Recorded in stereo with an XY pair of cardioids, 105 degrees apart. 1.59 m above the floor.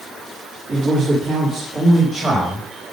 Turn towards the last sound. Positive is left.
turn(degrees=-25)